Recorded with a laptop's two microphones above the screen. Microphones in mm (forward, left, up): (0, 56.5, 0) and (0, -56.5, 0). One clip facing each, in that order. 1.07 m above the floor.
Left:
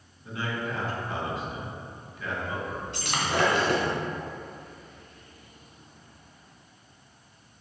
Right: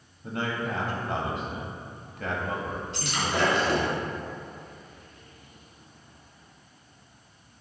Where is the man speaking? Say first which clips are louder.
Right 2 dB; 55° right (ahead or behind), 1.5 m.